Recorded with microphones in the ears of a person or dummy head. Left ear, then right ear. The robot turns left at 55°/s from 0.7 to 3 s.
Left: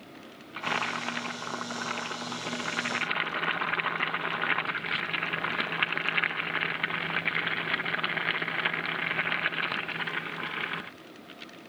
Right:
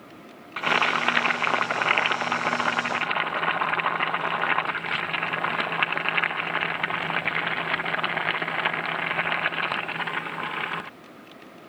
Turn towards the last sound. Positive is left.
turn(degrees=-170)